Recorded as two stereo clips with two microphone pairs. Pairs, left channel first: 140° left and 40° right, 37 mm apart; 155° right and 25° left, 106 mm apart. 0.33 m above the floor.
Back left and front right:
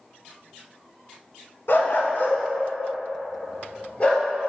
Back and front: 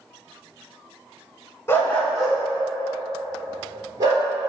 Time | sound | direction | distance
1.7 | a dog barking | 140° left | 0.7 m